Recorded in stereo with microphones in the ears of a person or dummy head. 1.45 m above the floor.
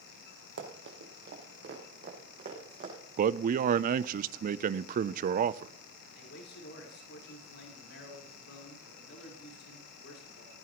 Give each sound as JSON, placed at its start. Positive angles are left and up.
{"t": 0.6, "sound": "running footsteps", "side_deg": -60, "distance_m": 3.0}
{"t": 3.2, "sound": "a man speaking", "side_deg": -45, "distance_m": 0.5}
{"t": 6.1, "sound": "a man speaking", "side_deg": 65, "distance_m": 4.5}